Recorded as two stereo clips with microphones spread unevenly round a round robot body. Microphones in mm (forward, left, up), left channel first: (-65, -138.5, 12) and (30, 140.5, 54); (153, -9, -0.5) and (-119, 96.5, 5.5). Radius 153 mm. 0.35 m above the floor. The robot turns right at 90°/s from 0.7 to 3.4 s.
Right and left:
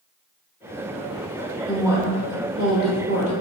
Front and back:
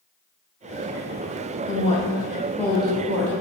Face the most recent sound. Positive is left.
turn(degrees=125)